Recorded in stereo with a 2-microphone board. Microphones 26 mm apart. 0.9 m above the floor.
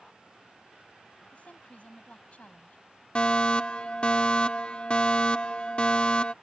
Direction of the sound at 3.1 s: 35° left (ahead or behind).